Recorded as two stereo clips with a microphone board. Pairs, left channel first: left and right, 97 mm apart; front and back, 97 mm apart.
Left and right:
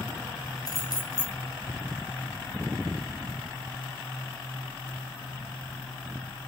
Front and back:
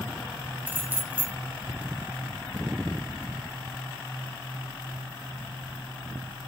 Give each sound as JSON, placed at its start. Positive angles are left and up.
{"t": 0.7, "sound": "keys jangling", "azimuth_deg": 115, "distance_m": 1.5}